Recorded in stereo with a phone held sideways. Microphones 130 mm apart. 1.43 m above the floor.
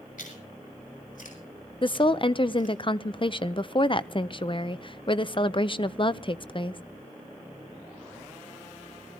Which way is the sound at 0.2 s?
80° left.